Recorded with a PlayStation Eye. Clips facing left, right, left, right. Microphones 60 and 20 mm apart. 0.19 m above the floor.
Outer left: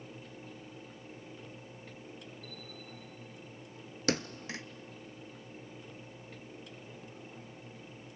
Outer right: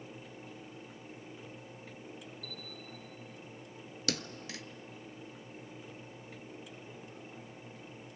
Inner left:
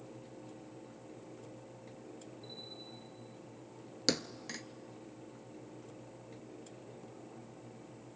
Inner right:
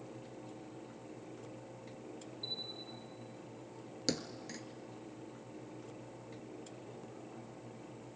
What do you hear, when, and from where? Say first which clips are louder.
2.4 s a bell: outer right 1 dB, inner right 8 dB; 65° right (ahead or behind), 4.5 m
4.1 s a thud: outer left 5 dB, inner left 4 dB; 35° left (ahead or behind), 0.7 m